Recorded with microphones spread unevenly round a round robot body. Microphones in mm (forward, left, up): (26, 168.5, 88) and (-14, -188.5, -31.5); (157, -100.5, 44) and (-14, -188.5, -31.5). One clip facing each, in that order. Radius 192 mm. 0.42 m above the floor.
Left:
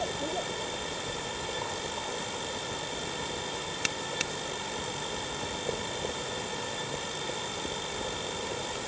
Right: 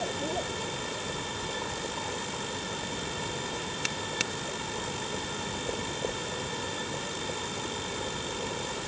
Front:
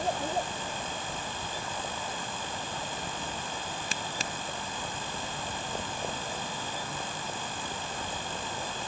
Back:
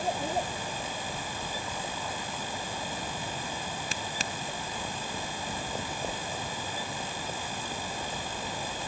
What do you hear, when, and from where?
Only background noise.